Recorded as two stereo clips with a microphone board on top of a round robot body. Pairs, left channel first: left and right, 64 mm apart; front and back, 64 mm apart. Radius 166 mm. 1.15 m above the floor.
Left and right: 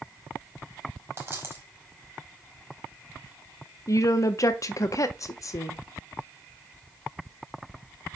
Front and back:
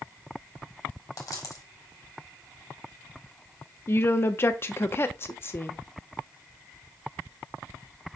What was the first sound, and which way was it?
A dropped coin, 35° right.